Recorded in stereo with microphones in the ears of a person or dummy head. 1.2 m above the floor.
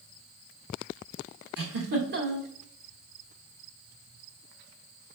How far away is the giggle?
About 1.2 m.